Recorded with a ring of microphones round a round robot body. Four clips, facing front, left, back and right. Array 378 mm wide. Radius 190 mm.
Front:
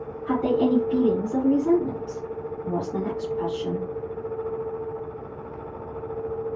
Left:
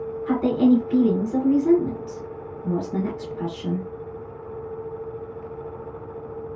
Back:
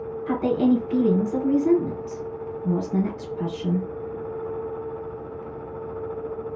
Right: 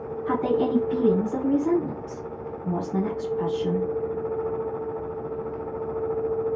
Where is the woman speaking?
140° left, 1.8 m.